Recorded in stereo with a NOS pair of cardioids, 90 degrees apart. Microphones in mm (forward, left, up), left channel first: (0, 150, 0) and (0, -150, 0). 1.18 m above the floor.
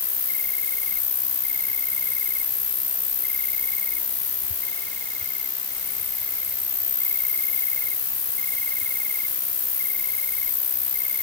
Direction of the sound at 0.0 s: 45° left.